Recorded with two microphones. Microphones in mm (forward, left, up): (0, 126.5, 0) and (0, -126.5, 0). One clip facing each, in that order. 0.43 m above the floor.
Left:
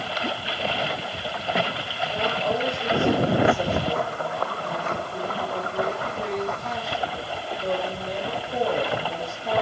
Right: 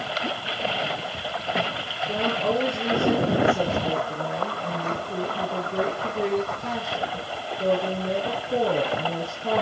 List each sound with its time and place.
2.1 s a woman speaking: 70° right (ahead or behind), 10 m